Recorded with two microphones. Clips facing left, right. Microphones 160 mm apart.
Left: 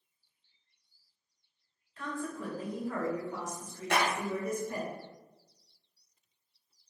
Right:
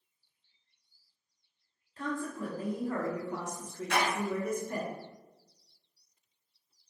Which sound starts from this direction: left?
A clap, at 3.9 s.